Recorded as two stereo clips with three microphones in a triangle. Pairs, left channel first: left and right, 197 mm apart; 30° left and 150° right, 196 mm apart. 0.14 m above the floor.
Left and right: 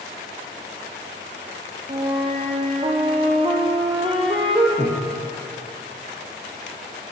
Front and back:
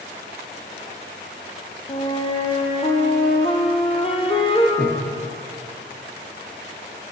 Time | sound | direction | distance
1.9 | a flute | 30° right | 1.1 m
4.8 | breathing | 25° left | 2.5 m